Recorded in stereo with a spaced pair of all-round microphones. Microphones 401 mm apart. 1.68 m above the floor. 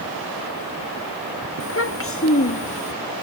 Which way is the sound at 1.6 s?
35° left (ahead or behind).